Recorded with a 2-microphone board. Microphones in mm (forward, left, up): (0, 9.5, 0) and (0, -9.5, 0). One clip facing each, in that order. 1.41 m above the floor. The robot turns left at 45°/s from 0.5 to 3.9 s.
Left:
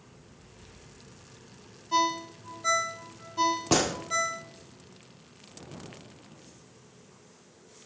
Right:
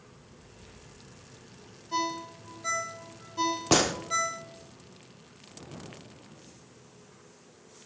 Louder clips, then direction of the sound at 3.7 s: Right 4 dB; 15° right (ahead or behind).